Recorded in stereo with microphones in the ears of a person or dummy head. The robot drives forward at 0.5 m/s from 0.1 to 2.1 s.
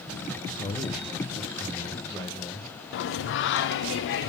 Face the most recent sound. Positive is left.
turn(degrees=70)  # may be behind; listen again after turning